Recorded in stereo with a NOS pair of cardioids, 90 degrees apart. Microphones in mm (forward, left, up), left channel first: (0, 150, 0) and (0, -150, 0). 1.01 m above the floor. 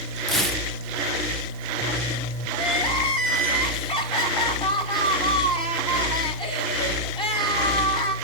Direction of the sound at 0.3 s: Straight ahead.